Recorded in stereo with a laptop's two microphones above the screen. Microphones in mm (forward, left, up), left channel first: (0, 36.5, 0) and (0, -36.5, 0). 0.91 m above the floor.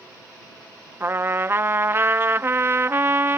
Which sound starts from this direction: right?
A trumpet, at 1.0 s.